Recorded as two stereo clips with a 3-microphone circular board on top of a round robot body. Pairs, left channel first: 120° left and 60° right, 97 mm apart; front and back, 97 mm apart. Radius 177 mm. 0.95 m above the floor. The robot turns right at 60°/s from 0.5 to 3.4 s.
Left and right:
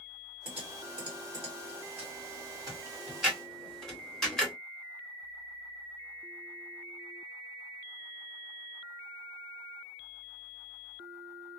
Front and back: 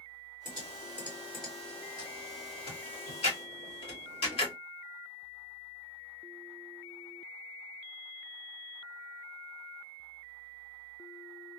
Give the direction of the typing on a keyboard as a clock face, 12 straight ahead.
5 o'clock.